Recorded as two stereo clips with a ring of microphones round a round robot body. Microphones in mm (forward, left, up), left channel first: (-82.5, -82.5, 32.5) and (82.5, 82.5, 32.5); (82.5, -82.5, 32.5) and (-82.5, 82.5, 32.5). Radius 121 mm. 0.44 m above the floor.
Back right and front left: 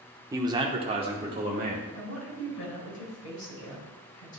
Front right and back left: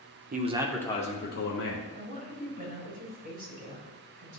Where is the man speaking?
115° left, 0.9 m; by 1.8 s 25° right, 1.7 m.